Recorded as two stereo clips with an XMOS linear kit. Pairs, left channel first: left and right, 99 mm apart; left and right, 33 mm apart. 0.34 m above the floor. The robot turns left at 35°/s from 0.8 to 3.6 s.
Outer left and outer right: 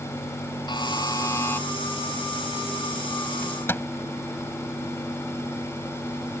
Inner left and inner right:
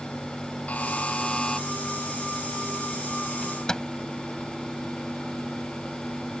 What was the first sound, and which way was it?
A buzzer, 50° left (ahead or behind).